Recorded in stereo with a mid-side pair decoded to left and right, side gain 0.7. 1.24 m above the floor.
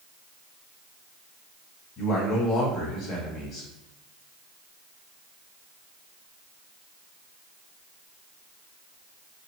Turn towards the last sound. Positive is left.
turn(degrees=45)